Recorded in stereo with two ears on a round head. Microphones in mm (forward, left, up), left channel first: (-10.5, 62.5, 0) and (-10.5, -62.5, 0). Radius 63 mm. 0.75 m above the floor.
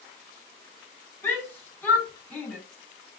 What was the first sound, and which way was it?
A shout, 15° left (ahead or behind).